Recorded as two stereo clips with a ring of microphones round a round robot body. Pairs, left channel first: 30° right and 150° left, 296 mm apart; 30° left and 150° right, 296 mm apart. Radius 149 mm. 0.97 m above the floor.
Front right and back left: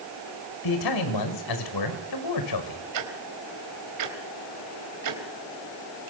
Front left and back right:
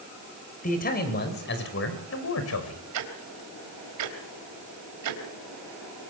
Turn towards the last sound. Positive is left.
turn(degrees=180)